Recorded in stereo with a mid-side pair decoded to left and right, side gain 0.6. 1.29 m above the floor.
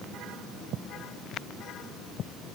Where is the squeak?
No squeak in this recording.